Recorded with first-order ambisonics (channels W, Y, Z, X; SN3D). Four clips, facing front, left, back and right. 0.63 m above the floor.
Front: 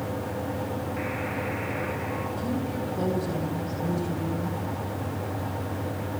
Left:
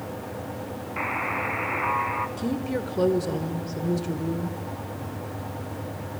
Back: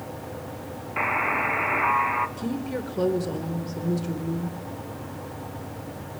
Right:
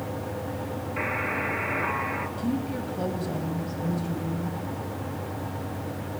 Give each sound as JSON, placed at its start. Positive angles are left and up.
{"t": 1.0, "sound": "a buzzer", "azimuth_deg": 160, "distance_m": 1.7}
{"t": 2.4, "sound": "a woman speaking", "azimuth_deg": 115, "distance_m": 2.5}